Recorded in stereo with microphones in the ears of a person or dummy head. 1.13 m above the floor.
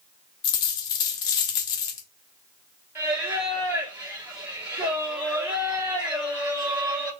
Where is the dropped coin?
25° left (ahead or behind), 0.6 m.